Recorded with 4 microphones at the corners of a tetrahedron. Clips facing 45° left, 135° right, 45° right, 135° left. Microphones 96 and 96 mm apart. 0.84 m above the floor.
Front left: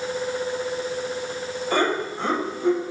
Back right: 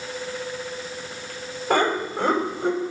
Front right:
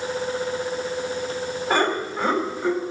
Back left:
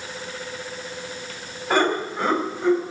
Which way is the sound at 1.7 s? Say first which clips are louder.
Back right 2 dB, back left 2 dB; 135° right.